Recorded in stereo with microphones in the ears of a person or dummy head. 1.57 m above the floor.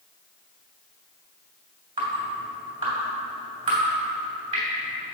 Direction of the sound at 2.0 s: 30° right (ahead or behind).